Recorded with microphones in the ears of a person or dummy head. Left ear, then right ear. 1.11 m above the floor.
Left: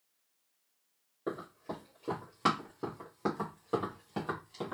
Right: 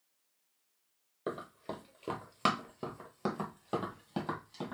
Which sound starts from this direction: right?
Running footsteps, at 1.3 s.